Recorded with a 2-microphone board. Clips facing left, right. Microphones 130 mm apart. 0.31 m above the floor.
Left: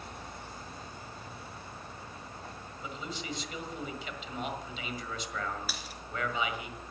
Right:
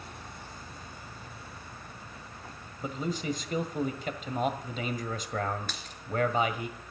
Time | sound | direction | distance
2.8 | a man speaking | 45° right (ahead or behind) | 1.6 m
5.7 | a dropped coin | 5° left (ahead or behind) | 1.8 m